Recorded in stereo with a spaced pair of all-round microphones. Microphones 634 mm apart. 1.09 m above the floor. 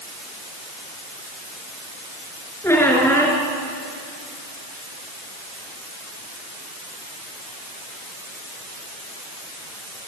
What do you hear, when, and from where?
2.6 s a squeak: 5° left (ahead or behind), 4.5 m